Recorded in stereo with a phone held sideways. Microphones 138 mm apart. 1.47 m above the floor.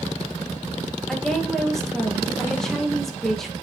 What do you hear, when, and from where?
1.1 s a woman speaking: 5° left (ahead or behind), 1.9 m